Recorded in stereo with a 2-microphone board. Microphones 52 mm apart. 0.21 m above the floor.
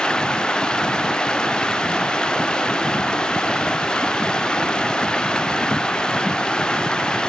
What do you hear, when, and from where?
0.0 s running water: 15° left (ahead or behind)